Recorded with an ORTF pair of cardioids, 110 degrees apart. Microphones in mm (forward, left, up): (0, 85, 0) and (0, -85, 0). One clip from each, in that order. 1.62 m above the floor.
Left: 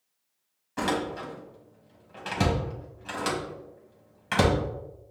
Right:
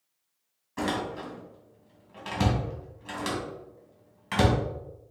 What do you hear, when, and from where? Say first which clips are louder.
0.8 s a door slam: left 2 dB; 15° left, 1.5 m